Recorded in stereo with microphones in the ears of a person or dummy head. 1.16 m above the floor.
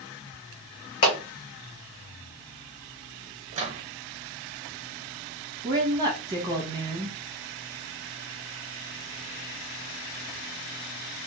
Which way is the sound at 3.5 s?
30° right (ahead or behind).